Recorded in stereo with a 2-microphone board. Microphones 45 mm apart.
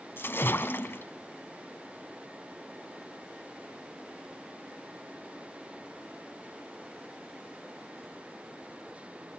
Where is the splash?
60° left (ahead or behind), 1.5 m.